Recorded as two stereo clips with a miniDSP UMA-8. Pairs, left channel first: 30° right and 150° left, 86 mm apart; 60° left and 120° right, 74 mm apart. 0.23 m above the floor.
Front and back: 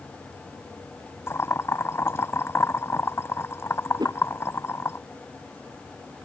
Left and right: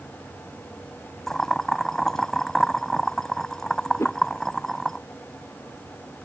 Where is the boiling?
20° right.